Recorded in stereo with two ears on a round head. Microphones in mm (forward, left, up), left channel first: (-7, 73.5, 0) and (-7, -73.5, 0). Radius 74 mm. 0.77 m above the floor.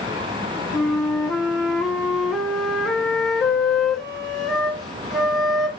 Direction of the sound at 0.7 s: Centre (ahead or behind).